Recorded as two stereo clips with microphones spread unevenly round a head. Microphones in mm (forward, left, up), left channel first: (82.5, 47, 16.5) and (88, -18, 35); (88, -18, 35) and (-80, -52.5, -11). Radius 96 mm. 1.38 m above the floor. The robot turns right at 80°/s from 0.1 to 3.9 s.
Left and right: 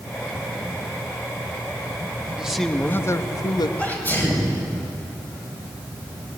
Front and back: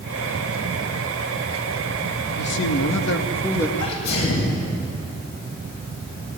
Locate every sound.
2.4 s a man speaking: 10° right, 1.8 m; by 3.7 s 95° left, 1.8 m
3.8 s a sneeze: 25° left, 9 m; by 4.6 s 30° left, 9 m